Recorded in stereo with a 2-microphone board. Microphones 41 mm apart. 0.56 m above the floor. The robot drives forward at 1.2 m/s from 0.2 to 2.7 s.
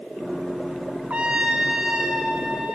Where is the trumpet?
35° right (ahead or behind), 0.8 m; by 2.8 s 10° right (ahead or behind), 2.5 m.